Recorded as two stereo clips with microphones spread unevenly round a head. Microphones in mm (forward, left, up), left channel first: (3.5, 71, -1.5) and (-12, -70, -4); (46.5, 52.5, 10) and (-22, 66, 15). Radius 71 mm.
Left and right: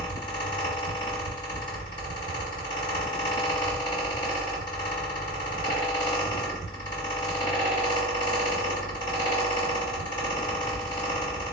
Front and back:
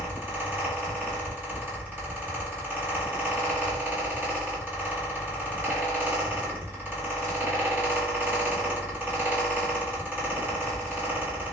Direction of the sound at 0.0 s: 125° left.